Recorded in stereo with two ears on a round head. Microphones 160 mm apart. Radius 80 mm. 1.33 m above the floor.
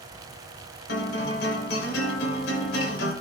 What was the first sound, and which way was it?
A guitar, 65° left (ahead or behind).